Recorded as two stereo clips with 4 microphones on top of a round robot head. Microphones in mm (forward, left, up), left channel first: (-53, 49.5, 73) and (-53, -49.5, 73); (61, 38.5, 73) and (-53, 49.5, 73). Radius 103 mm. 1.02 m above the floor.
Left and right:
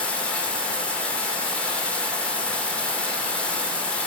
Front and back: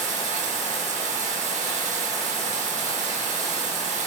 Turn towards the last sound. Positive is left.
turn(degrees=165)